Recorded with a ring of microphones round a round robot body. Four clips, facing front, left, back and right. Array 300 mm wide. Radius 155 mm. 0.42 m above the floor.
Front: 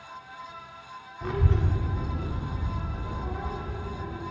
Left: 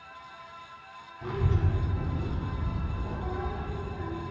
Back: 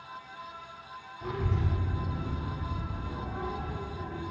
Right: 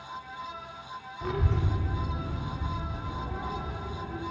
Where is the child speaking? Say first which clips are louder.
Even, front 4 dB; 45° right, 0.7 m; by 4.2 s 55° left, 1.8 m.